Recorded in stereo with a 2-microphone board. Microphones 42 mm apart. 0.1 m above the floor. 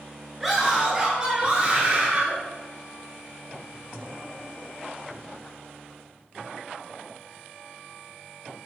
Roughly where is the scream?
Centre.